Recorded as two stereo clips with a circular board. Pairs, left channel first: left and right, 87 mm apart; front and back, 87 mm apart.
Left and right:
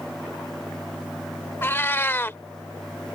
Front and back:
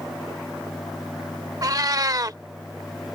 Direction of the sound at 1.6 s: 150° left.